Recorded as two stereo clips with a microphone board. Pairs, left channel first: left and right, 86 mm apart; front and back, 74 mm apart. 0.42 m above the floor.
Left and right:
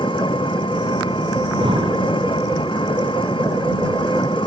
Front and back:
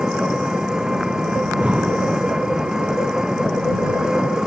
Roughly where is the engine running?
Left.